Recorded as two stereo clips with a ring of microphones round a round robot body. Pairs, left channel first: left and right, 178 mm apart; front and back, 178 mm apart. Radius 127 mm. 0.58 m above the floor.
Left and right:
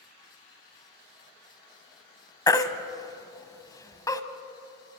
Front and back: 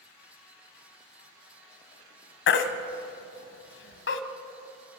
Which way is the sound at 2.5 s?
20° left.